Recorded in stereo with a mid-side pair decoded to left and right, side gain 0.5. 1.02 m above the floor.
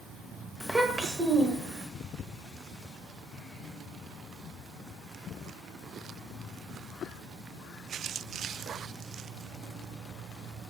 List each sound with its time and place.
0.6 s a child speaking: straight ahead, 0.6 m; by 1.9 s 45° right, 1.0 m